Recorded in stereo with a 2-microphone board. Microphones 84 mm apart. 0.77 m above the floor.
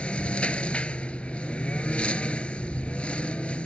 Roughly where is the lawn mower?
Centre.